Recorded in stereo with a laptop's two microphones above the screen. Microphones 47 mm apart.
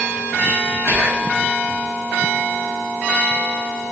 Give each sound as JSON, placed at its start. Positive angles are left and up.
{"t": 0.9, "sound": "whispering", "side_deg": -50, "distance_m": 1.2}